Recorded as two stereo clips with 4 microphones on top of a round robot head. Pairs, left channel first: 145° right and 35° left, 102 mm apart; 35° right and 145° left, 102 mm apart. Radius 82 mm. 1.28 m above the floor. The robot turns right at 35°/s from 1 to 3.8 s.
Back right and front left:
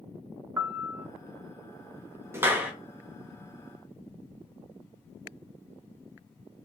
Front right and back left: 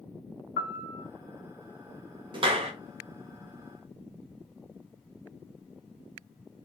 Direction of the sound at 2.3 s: 105° left.